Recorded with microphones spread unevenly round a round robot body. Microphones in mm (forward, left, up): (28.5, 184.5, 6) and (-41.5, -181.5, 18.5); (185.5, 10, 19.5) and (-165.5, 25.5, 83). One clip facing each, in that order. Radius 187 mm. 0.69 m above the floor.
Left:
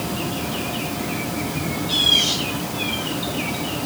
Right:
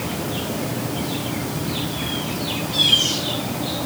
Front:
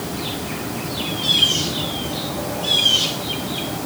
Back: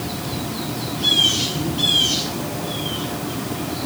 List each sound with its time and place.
Only background noise.